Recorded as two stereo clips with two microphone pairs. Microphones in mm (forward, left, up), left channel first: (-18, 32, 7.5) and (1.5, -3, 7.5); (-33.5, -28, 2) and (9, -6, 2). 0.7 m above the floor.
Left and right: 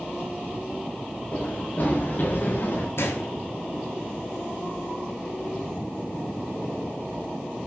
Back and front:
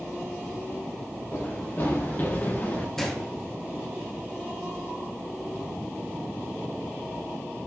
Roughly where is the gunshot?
Behind left.